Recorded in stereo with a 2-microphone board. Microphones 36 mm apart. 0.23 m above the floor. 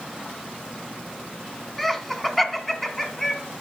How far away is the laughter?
About 1.6 m.